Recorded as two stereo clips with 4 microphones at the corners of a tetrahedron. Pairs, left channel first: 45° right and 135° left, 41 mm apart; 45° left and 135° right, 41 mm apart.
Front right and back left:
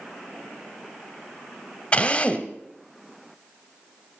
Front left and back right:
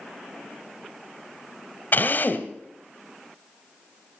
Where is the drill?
15° left, 1.0 m.